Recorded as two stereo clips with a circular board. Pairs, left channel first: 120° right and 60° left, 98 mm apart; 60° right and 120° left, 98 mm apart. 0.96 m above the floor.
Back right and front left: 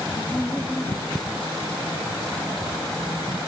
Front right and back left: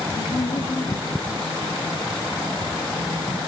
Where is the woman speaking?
40° right, 1.6 m.